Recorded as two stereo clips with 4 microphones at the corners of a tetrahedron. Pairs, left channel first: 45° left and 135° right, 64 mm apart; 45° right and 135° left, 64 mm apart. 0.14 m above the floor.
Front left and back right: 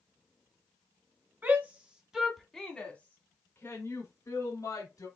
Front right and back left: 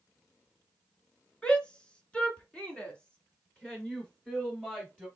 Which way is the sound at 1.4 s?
105° right.